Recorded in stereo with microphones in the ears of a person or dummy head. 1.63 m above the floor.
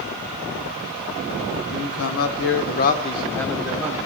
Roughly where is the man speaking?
Left.